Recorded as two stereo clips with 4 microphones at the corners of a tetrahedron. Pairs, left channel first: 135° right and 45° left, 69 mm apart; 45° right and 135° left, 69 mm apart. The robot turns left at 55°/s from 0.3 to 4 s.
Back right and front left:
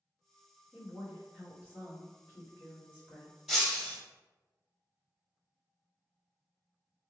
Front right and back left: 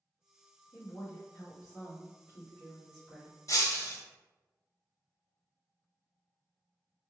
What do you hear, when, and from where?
0.7 s a woman speaking: 15° right, 1.6 m; by 3.4 s 160° right, 1.6 m
3.5 s breaking glass: 45° right, 0.8 m; by 4.0 s 70° right, 0.8 m